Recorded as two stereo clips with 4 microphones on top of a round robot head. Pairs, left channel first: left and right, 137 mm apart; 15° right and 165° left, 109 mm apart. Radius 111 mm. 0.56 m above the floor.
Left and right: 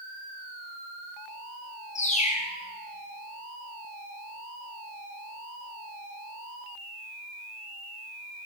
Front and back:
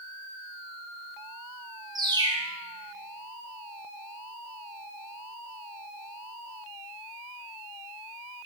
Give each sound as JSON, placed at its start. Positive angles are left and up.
{"t": 1.9, "sound": "a bird", "azimuth_deg": 120, "distance_m": 3.0}